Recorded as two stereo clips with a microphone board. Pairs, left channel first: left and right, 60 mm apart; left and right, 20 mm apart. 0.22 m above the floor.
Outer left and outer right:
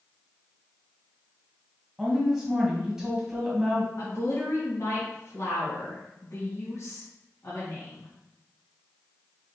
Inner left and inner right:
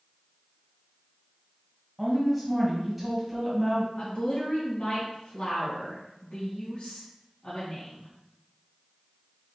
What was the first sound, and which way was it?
A woman speaking, 10° right (ahead or behind).